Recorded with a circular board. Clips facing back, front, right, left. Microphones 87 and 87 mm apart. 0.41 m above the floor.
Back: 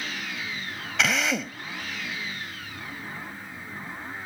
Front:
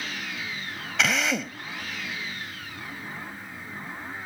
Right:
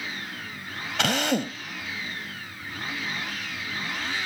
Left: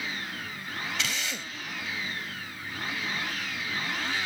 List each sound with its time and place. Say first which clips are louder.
1.0 s a drill: even, right 10 dB; 90° right